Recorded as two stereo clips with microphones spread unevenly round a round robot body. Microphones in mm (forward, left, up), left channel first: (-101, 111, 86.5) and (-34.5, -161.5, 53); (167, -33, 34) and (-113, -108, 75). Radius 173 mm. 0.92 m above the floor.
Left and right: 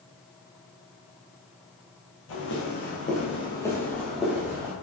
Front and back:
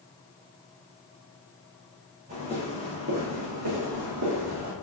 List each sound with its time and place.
2.3 s footsteps: 130° left, 1.8 m; by 4.7 s 155° right, 2 m